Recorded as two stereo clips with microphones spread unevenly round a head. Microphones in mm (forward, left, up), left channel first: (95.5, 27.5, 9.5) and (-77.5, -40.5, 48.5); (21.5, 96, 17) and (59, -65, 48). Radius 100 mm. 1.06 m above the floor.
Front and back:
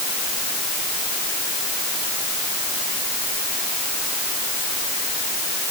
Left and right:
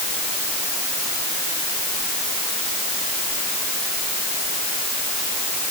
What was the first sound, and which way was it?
Only background noise.